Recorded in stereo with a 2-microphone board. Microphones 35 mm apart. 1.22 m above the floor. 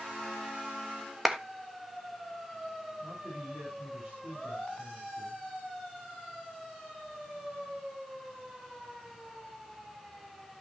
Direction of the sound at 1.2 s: 10° right (ahead or behind).